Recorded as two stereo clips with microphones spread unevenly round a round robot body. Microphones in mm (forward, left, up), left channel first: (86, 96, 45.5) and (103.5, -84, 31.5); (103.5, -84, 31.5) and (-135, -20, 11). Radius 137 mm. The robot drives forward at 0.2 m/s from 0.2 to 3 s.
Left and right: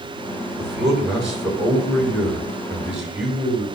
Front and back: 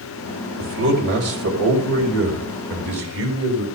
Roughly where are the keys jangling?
No keys jangling in this recording.